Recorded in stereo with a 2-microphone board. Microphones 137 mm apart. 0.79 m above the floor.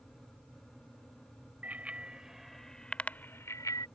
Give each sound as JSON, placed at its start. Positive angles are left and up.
{"t": 1.6, "sound": "a bicycle bell", "side_deg": -10}